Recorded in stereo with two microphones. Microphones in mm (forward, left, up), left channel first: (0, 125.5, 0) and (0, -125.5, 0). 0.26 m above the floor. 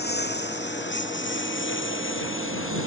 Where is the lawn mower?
40° left (ahead or behind); by 2.9 s 50° left (ahead or behind).